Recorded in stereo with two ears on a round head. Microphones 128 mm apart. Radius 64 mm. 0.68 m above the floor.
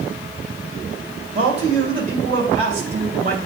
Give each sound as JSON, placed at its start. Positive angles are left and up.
{"t": 1.4, "sound": "a man speaking", "side_deg": -50, "distance_m": 2.5}